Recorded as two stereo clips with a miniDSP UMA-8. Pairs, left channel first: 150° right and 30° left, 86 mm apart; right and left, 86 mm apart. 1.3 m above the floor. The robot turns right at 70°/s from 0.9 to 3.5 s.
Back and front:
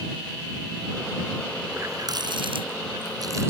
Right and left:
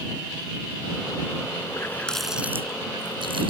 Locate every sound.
1.7 s a running tap: 35° right; by 3.5 s 90° left